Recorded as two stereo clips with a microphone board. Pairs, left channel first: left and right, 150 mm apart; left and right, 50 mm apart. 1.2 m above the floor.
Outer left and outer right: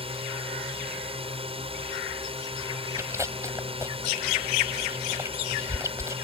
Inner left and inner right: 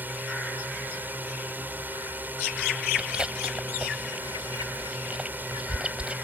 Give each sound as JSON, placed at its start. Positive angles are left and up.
{"t": 0.0, "sound": "a drone", "side_deg": -40}
{"t": 3.0, "sound": "chewing", "side_deg": -20}